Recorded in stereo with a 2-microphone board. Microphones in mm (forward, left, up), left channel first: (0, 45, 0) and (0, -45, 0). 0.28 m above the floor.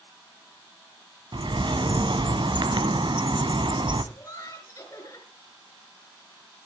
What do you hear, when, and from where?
1.3 s a bird: 65° right (ahead or behind), 0.9 m
4.1 s laughter: 40° left (ahead or behind), 5 m